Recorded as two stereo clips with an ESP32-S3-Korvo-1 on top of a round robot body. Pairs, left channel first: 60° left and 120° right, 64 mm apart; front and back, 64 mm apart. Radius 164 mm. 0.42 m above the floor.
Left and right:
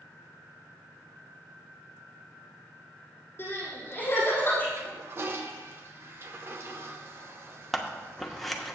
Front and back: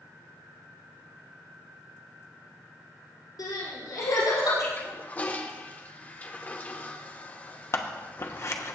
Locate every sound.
3.4 s crying: 5° left, 5 m
4.8 s a toilet flushing: 65° right, 0.5 m
7.7 s scissors: 30° right, 1.1 m